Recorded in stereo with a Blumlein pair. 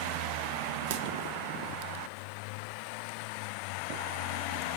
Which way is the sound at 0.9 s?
55° right.